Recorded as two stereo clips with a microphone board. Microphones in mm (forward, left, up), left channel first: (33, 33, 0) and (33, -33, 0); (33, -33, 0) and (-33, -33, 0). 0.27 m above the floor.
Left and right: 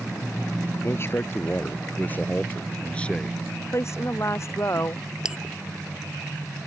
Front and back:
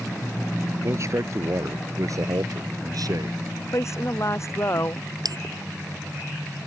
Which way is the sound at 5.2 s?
170° right.